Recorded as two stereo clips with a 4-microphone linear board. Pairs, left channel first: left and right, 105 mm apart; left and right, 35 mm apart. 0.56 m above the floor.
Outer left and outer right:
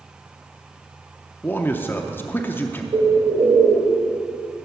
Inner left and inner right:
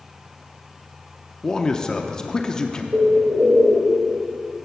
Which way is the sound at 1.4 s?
20° left (ahead or behind).